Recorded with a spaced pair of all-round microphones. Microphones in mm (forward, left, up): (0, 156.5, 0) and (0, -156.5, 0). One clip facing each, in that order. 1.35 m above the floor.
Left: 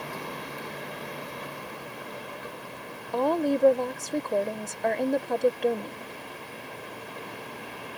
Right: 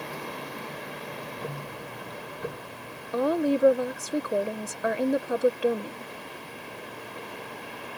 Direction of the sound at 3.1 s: 10° right (ahead or behind).